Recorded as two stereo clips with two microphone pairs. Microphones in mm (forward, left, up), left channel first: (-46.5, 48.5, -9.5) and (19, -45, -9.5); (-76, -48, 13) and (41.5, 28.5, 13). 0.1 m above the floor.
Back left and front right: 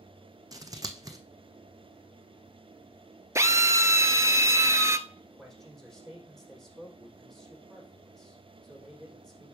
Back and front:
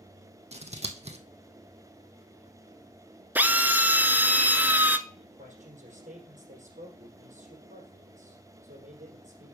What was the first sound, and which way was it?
Scissors, straight ahead.